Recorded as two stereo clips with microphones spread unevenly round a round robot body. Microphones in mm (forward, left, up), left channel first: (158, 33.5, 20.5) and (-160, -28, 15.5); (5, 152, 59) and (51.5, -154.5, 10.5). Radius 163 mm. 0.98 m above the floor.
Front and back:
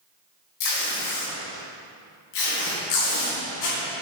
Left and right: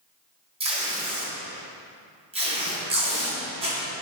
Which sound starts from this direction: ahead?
Tape being pulled, at 0.6 s.